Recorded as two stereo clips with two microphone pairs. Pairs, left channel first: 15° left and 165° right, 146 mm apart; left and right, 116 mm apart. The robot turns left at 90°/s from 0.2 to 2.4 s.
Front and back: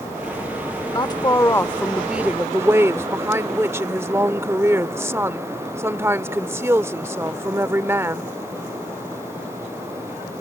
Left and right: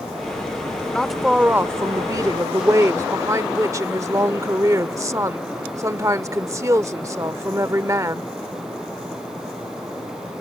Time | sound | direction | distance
0.9 | a woman speaking | 20° left | ?